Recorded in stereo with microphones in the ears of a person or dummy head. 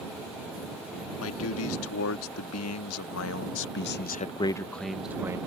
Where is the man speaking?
85° left; by 5.4 s 20° right (ahead or behind).